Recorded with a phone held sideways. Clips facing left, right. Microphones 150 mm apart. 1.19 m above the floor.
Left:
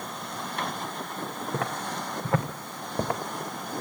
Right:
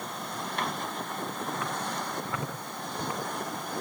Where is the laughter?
I don't hear laughter.